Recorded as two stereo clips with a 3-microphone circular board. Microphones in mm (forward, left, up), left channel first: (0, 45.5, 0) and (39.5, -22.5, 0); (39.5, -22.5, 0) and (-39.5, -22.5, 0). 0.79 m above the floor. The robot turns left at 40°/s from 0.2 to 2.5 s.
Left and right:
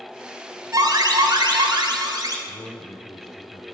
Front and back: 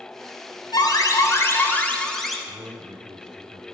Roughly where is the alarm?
Ahead right.